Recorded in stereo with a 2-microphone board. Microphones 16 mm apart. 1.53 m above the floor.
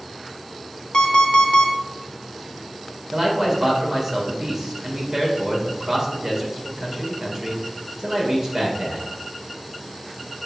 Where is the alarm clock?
60° left (ahead or behind), 1.2 m.